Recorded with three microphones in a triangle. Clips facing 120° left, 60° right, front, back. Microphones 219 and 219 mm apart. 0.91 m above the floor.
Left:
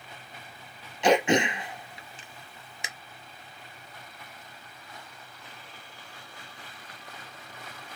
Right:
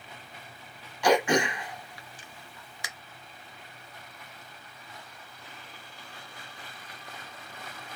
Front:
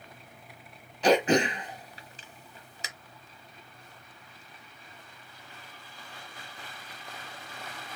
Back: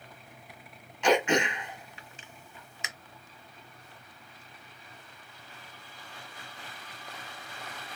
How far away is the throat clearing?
About 0.9 m.